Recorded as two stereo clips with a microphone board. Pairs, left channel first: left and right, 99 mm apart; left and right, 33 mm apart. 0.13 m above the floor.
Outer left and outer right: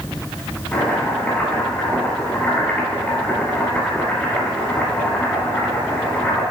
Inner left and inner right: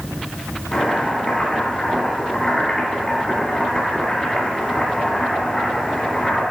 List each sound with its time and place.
0.7 s chopping: 20° left (ahead or behind), 3 m